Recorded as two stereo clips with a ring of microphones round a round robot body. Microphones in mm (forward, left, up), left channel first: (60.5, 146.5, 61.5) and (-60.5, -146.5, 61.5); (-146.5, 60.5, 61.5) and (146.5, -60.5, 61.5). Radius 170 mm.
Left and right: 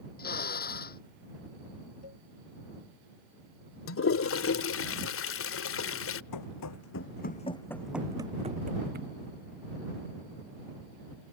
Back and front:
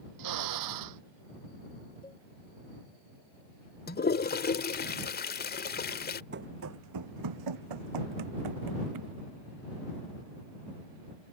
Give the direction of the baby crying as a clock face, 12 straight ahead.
No baby crying in this recording.